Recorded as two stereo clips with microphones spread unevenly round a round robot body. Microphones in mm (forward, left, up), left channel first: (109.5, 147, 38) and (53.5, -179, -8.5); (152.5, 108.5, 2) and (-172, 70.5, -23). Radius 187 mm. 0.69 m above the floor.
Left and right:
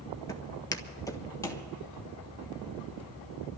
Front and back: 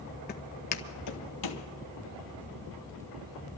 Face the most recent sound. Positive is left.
turn(degrees=5)